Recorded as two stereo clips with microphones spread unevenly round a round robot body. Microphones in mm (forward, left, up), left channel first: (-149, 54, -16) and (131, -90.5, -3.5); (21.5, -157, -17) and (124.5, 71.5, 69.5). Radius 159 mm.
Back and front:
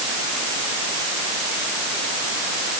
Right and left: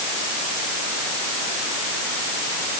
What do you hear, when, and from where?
Only background noise.